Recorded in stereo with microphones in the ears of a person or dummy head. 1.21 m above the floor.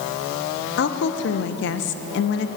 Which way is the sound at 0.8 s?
60° left (ahead or behind).